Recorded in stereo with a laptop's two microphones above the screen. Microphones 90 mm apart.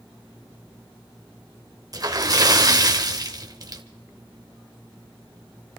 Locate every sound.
1.9 s a splash: 45° right (ahead or behind), 1.7 m